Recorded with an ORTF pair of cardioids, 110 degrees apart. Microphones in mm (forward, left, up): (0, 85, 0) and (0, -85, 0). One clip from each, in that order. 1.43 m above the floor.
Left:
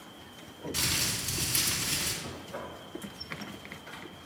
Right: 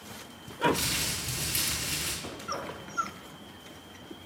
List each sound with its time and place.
0.7 s crumpling: 15° left, 2.5 m
2.2 s knocking: 40° right, 1.3 m